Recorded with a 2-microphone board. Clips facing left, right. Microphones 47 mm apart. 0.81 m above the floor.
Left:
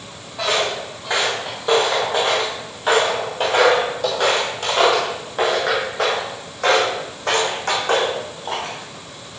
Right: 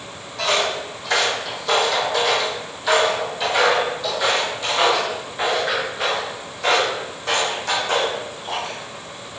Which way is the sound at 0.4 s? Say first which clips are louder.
Even; 15° left (ahead or behind).